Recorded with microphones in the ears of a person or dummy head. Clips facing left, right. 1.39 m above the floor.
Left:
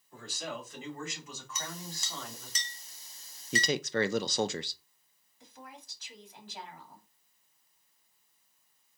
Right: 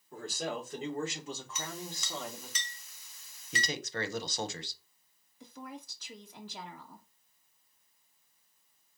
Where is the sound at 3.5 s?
55° left (ahead or behind), 0.5 m.